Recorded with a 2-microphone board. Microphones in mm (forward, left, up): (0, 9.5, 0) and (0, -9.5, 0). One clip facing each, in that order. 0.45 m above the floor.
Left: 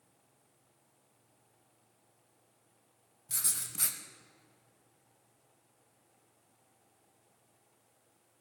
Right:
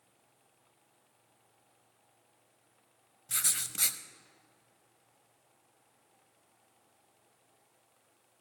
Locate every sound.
3.3 s writing: 75° right (ahead or behind), 0.5 m